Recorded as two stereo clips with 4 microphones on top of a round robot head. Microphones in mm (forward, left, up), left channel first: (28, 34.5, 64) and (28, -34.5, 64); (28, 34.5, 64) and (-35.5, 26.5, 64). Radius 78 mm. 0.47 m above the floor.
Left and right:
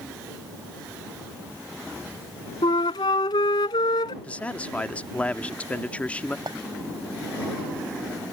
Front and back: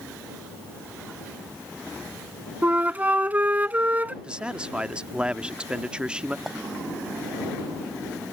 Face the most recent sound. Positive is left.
turn(degrees=-90)